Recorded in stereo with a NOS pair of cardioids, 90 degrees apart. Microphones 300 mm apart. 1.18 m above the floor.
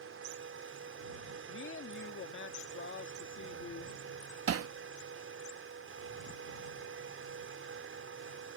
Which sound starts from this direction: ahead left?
A woman speaking, at 1.5 s.